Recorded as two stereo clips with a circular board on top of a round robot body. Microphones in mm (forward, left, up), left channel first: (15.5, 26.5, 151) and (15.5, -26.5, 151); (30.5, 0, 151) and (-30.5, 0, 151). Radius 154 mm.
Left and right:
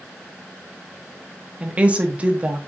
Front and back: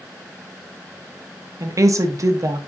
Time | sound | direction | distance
1.6 | a woman speaking | 150° right | 1.5 m